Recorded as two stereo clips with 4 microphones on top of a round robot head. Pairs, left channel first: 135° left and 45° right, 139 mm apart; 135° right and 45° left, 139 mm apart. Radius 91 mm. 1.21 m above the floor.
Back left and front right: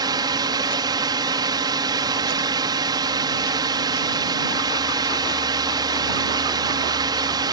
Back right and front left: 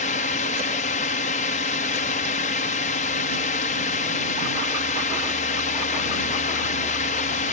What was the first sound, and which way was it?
A drone, 105° right.